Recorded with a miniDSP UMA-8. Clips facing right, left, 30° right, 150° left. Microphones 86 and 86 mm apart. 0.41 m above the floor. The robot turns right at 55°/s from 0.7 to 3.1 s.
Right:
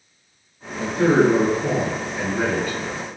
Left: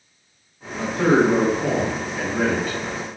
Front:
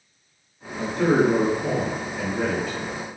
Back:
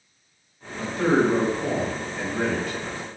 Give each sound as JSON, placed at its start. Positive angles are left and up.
{"t": 0.8, "sound": "a man speaking", "azimuth_deg": 45, "distance_m": 1.9}